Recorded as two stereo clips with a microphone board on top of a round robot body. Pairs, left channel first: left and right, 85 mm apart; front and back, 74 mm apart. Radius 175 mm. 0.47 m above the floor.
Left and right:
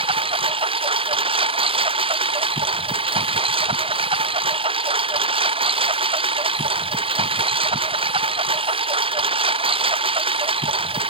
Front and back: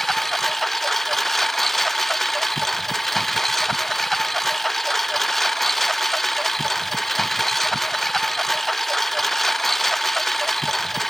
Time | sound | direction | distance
0.0 | a lawn mower | 85° right | ?